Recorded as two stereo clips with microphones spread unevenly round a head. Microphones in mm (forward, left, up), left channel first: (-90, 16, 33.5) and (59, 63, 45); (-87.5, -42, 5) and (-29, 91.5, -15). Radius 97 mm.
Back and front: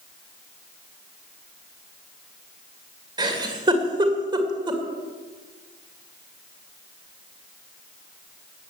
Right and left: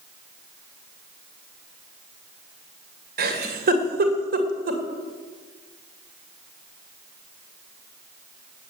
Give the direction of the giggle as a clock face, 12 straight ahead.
9 o'clock.